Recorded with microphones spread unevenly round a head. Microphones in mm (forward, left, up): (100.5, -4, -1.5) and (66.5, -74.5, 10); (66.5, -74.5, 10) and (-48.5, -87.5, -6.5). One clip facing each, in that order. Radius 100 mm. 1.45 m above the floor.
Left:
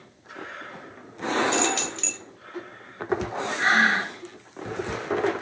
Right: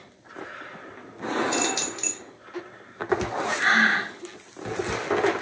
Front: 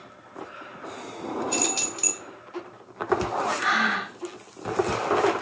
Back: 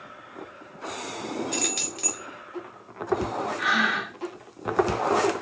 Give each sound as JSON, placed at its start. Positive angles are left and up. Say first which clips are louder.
{"t": 1.5, "sound": "keys jangling", "louder": "left 2 dB, front 3 dB", "azimuth_deg": -45, "distance_m": 1.3}
{"t": 3.6, "sound": "breathing", "louder": "left 1 dB, even", "azimuth_deg": -15, "distance_m": 1.5}